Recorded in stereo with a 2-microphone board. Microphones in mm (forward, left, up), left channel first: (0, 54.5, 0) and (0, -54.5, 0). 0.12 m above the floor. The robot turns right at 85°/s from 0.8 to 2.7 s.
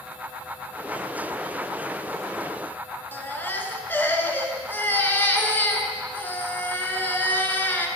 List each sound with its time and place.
3.1 s a baby crying: 20° left (ahead or behind), 1.1 m